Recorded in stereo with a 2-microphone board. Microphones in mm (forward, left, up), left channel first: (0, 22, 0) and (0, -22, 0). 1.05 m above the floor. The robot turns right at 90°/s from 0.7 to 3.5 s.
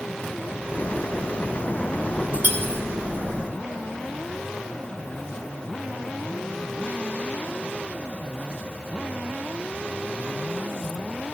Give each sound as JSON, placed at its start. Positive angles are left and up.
{"t": 2.4, "sound": "cutlery clinking", "side_deg": -45, "distance_m": 2.0}